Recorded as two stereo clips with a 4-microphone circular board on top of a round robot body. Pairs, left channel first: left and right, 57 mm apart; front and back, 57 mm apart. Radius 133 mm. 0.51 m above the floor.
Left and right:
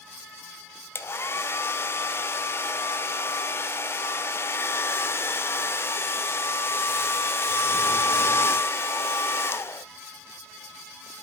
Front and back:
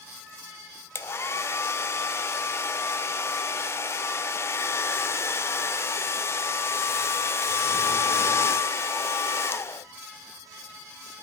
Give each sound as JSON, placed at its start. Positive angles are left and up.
{"t": 0.9, "sound": "a hair dryer", "azimuth_deg": 45, "distance_m": 0.8}